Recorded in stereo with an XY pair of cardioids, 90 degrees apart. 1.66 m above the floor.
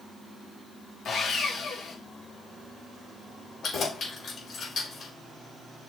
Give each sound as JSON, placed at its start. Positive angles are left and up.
{"t": 1.1, "sound": "sawing", "azimuth_deg": 70, "distance_m": 2.0}
{"t": 3.6, "sound": "keys jangling", "azimuth_deg": 60, "distance_m": 4.5}